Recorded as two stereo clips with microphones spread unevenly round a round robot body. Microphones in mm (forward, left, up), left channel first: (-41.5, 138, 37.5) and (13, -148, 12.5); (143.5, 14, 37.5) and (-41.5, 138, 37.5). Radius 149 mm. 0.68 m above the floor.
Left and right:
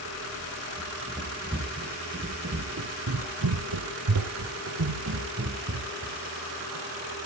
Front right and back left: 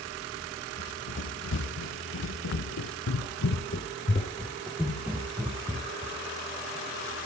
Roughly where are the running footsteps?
Ahead.